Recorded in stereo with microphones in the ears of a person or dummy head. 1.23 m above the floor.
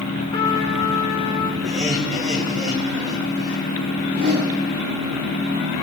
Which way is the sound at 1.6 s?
35° right (ahead or behind).